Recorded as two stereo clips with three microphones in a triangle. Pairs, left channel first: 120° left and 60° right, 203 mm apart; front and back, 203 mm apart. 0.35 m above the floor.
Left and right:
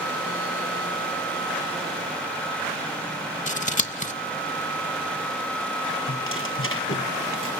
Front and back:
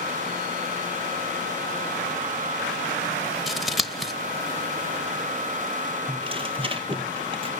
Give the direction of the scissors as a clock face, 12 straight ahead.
9 o'clock.